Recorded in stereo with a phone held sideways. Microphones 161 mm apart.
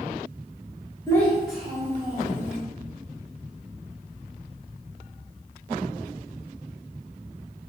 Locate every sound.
1.1 s a child speaking: 15° left (ahead or behind), 0.8 m; by 2.6 s 35° right (ahead or behind), 0.9 m